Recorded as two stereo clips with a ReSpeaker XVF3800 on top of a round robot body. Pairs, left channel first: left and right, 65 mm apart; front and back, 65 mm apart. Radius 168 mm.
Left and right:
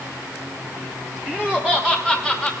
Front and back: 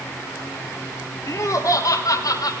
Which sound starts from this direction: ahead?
Laughter, at 1.3 s.